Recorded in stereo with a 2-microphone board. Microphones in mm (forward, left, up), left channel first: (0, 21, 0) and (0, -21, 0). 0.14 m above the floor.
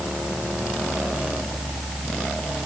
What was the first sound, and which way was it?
Only background noise.